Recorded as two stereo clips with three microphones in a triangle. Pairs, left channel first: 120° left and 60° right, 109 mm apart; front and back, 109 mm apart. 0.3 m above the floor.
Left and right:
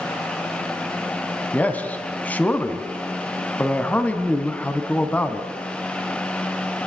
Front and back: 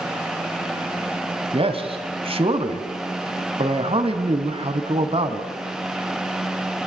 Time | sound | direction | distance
1.5 | a man speaking | 165° right | 2.5 m